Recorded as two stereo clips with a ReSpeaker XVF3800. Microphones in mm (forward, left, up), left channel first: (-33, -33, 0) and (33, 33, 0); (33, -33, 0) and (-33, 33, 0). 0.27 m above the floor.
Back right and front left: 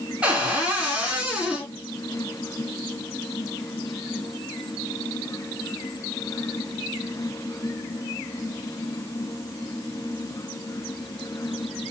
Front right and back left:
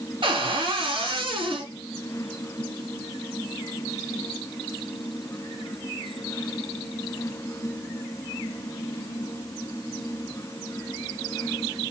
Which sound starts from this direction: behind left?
A cupboard door, at 0.2 s.